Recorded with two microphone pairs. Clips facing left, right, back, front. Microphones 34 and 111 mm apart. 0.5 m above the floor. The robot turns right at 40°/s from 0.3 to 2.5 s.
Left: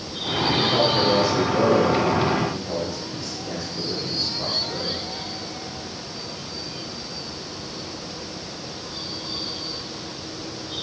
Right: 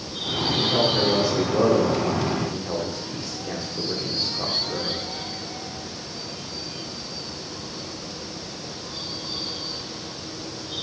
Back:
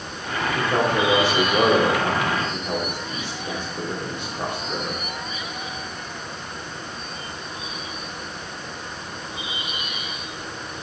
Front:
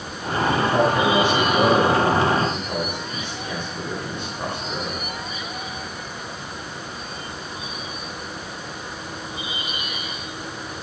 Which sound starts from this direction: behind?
A man speaking, at 0.6 s.